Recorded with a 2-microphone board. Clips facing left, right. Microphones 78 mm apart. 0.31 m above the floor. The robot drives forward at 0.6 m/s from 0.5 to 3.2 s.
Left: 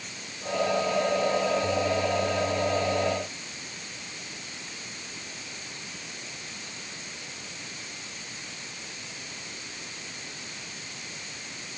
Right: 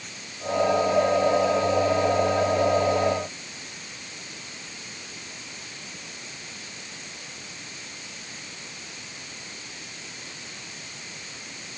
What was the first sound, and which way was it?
Only background noise.